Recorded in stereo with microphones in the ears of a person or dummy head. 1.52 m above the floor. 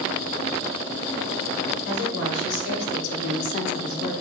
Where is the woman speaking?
60° left (ahead or behind), 2 m; by 4.1 s 15° left (ahead or behind), 0.6 m.